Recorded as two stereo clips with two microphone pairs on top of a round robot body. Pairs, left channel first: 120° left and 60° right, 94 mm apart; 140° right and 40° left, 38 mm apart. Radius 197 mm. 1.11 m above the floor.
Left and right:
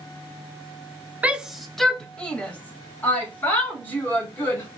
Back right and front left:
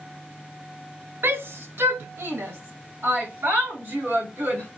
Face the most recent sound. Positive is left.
turn(degrees=55)